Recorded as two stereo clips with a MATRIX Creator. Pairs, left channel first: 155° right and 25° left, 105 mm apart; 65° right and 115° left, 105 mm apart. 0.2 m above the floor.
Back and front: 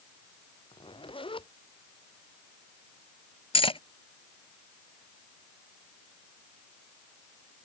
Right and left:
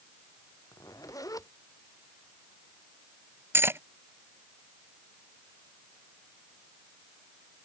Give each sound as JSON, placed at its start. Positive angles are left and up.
{"t": 0.7, "sound": "a zipper", "azimuth_deg": -125}
{"t": 3.5, "sound": "cutlery clinking", "azimuth_deg": 180}